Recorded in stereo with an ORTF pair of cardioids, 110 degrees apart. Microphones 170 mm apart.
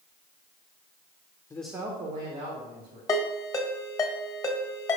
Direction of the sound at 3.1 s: 20° left.